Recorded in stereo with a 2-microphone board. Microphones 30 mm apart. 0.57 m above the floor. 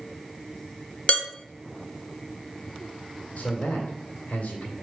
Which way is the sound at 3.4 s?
65° left (ahead or behind).